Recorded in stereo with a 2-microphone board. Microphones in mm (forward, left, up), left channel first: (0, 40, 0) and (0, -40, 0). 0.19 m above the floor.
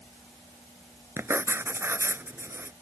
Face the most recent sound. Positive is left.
turn(degrees=-30)  # may be behind; listen again after turning